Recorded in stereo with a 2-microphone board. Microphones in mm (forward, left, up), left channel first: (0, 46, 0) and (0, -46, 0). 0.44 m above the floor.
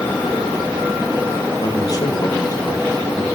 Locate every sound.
1.6 s a man speaking: 45° left (ahead or behind), 2 m